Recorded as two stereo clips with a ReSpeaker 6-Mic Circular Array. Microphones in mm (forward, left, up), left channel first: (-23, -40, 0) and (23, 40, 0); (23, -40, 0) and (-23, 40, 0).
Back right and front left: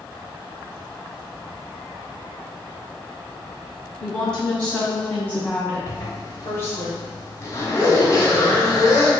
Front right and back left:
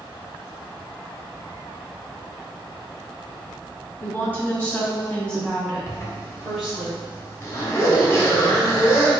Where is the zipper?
100° right, 1.4 m.